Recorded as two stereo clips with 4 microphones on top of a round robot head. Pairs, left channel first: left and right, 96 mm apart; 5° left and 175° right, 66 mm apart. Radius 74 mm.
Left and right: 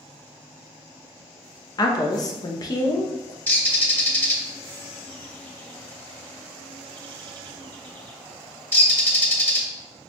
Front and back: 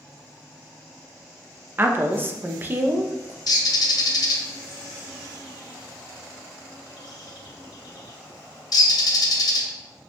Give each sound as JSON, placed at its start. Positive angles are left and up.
{"t": 1.8, "sound": "a woman speaking", "azimuth_deg": 130, "distance_m": 0.6}
{"t": 3.5, "sound": "a bird", "azimuth_deg": 20, "distance_m": 0.8}